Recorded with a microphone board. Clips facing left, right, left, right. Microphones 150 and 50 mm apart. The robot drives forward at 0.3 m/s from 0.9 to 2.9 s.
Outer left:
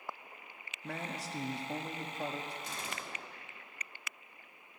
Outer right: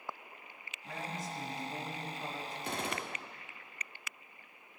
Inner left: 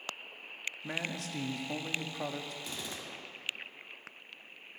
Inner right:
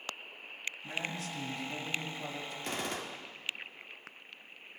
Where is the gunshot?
60° right (ahead or behind), 0.7 m.